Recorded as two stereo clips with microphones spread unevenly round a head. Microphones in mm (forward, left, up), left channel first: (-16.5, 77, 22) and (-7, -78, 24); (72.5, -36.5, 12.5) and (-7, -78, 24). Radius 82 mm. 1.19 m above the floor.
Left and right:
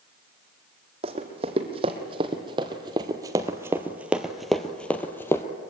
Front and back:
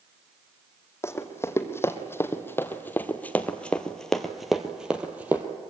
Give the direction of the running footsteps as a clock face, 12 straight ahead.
1 o'clock.